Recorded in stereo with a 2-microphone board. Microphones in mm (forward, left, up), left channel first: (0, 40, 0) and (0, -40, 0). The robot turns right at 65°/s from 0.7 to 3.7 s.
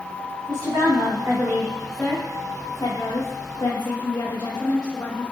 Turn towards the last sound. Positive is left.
turn(degrees=120)